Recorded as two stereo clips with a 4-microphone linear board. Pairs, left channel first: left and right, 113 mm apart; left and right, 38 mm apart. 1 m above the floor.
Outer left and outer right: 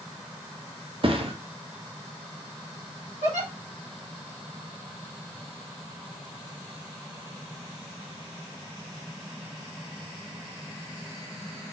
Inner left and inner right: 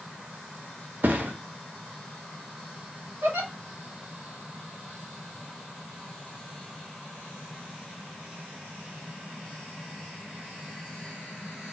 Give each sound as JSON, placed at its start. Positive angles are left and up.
{"t": 1.0, "sound": "a thud", "side_deg": -50, "distance_m": 0.6}
{"t": 3.2, "sound": "a giggle", "side_deg": -75, "distance_m": 1.7}